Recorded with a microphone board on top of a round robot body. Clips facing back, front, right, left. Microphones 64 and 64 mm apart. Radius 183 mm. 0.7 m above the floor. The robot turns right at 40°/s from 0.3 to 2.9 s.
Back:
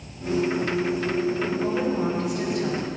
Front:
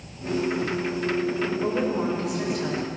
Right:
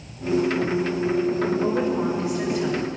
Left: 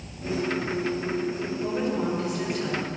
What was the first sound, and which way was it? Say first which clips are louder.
A woman speaking: back 1 dB, right 4 dB; 45° right.